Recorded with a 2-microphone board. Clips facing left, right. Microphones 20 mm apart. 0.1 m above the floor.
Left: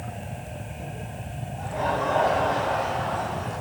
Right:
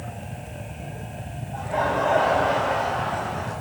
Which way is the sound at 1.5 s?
50° right (ahead or behind).